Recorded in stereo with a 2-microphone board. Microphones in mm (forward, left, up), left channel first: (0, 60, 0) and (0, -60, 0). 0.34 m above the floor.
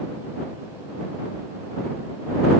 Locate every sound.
Only background noise.